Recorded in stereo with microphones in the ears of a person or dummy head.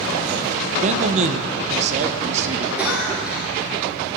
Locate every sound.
0.8 s a man speaking: 40° right (ahead or behind), 0.8 m
2.8 s a cough: 5° right (ahead or behind), 1.5 m